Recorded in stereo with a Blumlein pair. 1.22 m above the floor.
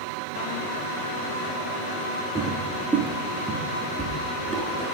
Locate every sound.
2.4 s footsteps: 10° right, 5.5 m